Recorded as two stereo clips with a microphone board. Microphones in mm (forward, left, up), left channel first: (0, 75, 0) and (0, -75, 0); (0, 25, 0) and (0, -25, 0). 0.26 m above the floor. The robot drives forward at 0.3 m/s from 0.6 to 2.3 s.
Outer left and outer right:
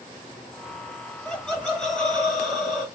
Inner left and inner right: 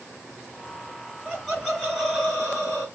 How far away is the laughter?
About 1.2 m.